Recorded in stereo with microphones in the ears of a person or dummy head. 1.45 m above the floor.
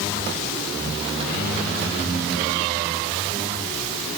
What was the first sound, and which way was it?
Only background noise.